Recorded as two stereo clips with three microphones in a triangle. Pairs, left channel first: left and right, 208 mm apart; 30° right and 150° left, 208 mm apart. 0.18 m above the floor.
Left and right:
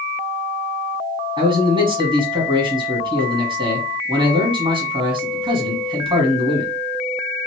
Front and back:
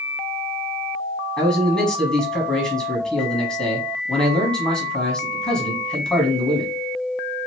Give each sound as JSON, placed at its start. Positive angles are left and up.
{"t": 1.4, "sound": "a man speaking", "azimuth_deg": -110, "distance_m": 1.1}